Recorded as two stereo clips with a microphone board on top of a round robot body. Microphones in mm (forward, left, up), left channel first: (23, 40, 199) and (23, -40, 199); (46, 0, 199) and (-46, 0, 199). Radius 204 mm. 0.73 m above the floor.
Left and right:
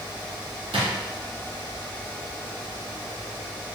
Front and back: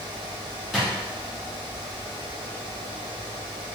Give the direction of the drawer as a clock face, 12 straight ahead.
3 o'clock.